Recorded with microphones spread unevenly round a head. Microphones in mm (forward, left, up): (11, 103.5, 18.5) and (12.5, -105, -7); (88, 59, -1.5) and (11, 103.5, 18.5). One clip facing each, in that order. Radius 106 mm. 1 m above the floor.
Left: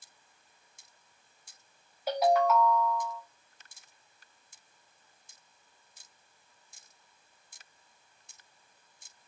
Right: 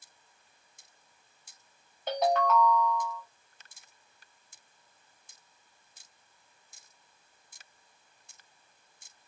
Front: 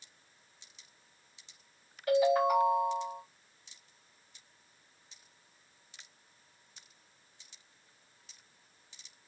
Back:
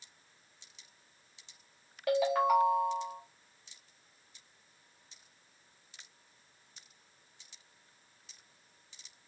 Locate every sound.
2.1 s a ringtone: 175° left, 0.9 m